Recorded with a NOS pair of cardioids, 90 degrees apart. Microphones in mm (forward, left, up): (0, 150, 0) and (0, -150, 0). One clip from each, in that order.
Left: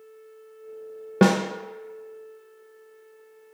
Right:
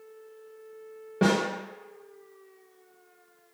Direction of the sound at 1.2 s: 50° left.